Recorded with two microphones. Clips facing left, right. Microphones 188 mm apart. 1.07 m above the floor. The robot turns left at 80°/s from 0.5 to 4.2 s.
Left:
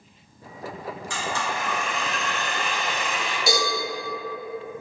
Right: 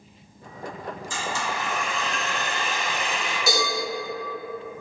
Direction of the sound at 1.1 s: 85° left.